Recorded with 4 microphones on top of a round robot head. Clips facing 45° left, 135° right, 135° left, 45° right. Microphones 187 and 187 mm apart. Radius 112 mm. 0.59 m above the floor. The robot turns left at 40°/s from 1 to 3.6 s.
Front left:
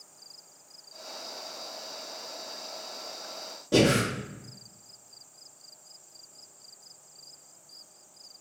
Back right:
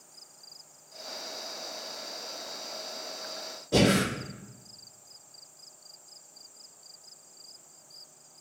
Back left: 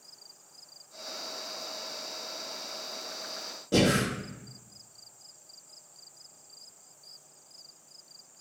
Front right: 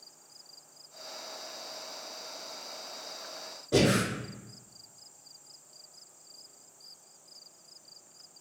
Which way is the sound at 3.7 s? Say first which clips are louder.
Front left 1 dB, even; 85° left.